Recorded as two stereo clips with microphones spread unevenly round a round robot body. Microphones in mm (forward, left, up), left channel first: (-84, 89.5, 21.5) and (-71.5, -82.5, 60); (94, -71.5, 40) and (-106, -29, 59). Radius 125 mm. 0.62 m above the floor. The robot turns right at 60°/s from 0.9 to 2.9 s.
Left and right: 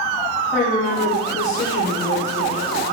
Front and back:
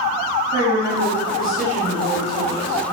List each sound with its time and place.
0.5 s a woman speaking: 10° left, 1.3 m; by 2.9 s 130° left, 1.3 m